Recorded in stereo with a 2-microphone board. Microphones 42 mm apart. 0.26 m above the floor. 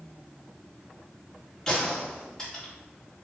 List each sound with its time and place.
1.7 s a gunshot: 15° left (ahead or behind), 1.6 m